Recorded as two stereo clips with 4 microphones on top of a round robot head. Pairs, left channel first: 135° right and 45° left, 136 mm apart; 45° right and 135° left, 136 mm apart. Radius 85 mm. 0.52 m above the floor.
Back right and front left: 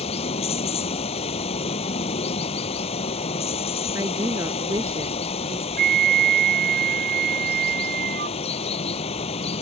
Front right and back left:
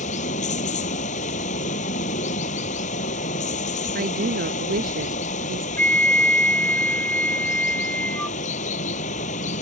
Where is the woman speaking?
115° left.